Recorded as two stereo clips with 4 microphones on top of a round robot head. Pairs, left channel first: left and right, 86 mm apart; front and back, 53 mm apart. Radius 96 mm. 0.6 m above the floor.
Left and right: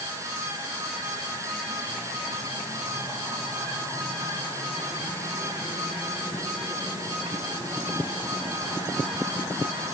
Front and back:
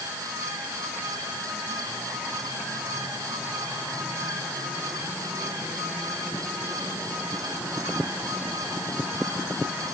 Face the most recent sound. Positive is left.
No sound to turn to.